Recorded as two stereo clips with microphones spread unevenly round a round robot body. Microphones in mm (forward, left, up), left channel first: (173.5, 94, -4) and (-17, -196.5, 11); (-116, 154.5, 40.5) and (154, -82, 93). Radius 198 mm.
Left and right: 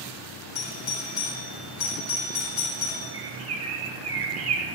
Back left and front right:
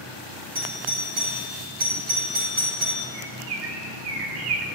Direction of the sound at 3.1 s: 75° right.